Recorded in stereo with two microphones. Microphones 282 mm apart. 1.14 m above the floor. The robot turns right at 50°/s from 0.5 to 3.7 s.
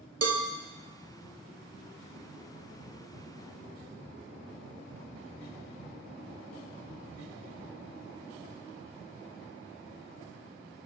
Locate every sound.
0.2 s a cowbell: 65° right (ahead or behind), 0.7 m